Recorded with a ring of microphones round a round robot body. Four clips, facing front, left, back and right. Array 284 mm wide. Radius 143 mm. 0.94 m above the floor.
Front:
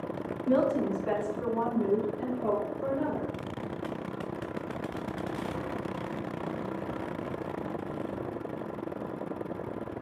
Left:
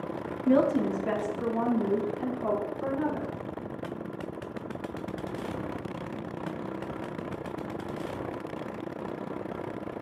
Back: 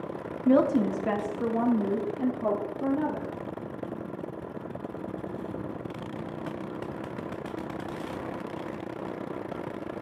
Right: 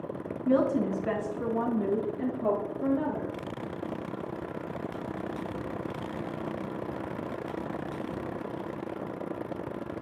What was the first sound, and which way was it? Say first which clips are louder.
A woman speaking: left 2 dB, back 4 dB; 170° left.